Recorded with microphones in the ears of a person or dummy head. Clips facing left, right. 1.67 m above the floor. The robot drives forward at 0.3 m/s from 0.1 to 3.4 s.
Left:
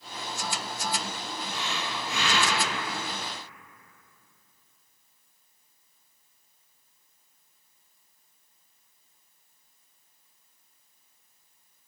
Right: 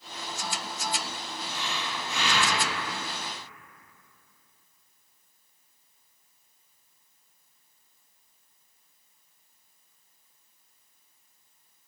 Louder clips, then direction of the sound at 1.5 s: Even; 40° left (ahead or behind).